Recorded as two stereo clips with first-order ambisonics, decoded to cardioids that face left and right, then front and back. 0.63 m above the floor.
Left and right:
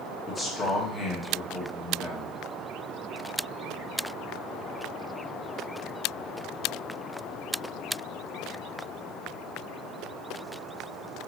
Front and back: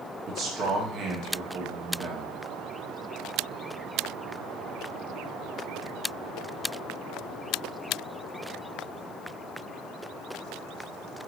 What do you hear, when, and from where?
0.3 s a man speaking: 155° left, 0.9 m